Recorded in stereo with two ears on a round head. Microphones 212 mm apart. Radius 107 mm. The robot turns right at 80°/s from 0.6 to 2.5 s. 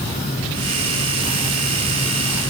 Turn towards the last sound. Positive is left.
No sound to turn to.